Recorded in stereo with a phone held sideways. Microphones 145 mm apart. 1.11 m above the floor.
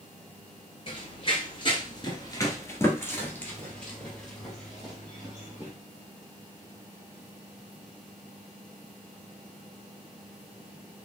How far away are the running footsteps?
About 1.4 m.